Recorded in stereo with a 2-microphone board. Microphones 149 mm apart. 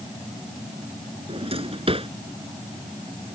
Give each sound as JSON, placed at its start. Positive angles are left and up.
{"t": 1.3, "sound": "a drawer", "side_deg": -45}